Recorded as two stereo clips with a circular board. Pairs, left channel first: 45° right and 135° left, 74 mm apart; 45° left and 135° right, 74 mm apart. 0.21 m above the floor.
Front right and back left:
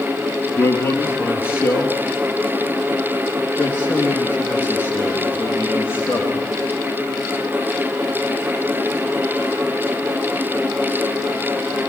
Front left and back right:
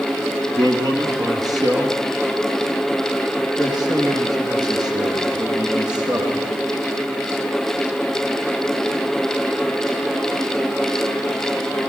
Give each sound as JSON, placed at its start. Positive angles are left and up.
{"t": 0.6, "sound": "a man speaking", "azimuth_deg": -105, "distance_m": 5.5}